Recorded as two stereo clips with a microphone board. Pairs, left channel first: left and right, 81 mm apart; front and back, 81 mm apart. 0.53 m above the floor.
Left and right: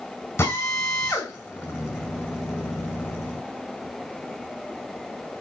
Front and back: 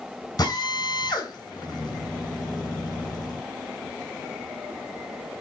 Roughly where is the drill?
Ahead left.